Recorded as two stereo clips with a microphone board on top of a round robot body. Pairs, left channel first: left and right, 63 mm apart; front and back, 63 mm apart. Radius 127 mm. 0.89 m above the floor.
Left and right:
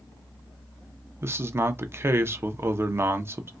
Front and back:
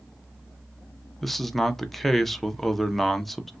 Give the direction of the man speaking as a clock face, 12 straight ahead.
3 o'clock.